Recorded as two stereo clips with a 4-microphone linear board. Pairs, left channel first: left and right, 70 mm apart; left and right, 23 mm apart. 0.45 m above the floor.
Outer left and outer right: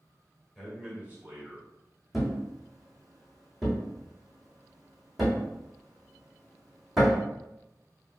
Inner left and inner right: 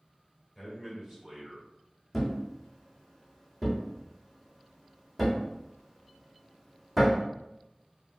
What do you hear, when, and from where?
0.6 s a man speaking: 5° right (ahead or behind), 1.8 m; by 1.7 s 45° right (ahead or behind), 1.6 m
2.1 s a thud: 5° right (ahead or behind), 1.4 m